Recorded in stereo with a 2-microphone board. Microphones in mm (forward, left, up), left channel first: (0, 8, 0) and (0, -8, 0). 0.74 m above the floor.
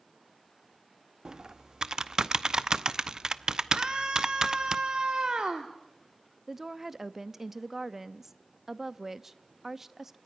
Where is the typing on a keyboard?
45° right (ahead or behind), 0.7 m.